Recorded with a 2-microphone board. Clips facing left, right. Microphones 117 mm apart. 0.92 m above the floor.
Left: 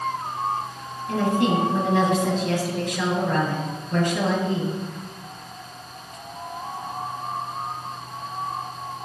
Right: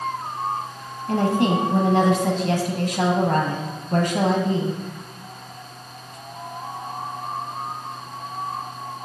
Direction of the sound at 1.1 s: 35° right (ahead or behind).